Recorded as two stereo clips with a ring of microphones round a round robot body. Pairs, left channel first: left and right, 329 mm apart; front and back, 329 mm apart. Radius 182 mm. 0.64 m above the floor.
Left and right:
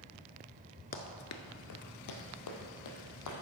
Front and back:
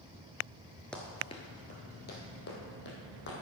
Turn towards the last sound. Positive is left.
turn(degrees=60)